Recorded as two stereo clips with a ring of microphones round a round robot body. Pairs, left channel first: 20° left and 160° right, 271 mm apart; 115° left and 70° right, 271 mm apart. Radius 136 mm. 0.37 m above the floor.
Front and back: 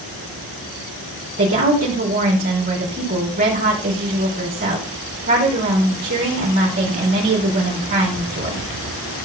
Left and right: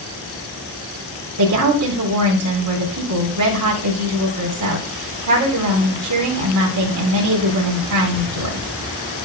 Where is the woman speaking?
100° right, 3 m.